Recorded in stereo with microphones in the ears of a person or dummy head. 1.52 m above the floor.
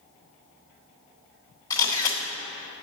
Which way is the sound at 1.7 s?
25° left (ahead or behind).